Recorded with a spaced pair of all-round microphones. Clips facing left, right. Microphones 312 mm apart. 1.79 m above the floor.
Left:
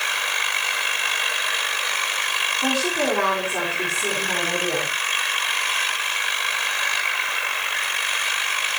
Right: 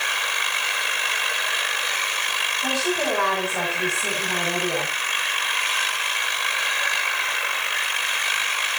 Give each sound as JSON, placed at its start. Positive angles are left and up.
{"t": 2.6, "sound": "a woman speaking", "side_deg": 70, "distance_m": 6.5}